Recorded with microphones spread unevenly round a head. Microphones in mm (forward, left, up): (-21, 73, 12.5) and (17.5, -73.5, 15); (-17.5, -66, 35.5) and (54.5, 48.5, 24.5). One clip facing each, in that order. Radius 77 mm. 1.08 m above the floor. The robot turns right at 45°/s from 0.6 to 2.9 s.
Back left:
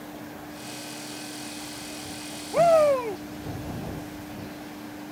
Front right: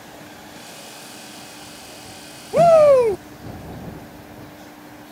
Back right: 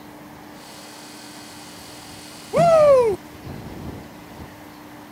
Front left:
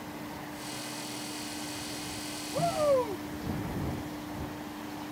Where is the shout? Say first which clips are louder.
Front right 8 dB, back right 14 dB; 125° right; by 3.2 s 110° right.